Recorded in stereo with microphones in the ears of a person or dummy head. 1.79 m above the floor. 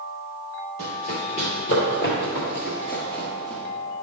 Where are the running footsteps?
45° left (ahead or behind), 2.5 m; by 3.6 s 10° left (ahead or behind), 1.8 m.